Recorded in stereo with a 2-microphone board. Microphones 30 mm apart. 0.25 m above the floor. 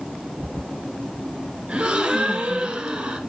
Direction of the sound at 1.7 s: 30° right (ahead or behind).